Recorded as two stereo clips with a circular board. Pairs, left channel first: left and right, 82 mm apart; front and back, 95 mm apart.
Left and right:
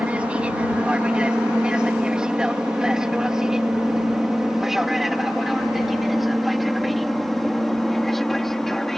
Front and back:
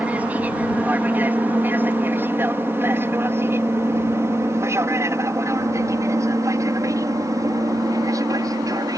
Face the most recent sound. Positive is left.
turn(degrees=175)